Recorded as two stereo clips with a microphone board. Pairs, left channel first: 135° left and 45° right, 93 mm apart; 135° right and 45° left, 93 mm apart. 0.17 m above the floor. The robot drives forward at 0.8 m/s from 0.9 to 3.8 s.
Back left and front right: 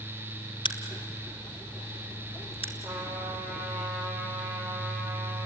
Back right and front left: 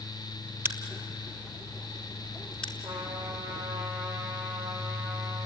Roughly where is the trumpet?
Ahead left.